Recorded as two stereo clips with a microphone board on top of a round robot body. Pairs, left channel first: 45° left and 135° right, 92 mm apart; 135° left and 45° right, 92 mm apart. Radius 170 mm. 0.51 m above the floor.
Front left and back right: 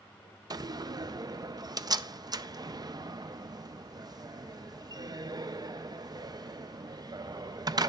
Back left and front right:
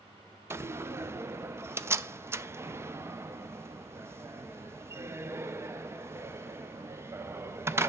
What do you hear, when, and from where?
0.5 s a door slam: 100° right, 0.6 m